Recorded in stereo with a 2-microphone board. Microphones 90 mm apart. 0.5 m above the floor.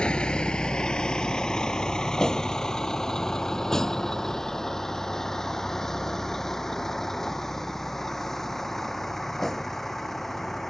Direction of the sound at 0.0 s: 10° left (ahead or behind).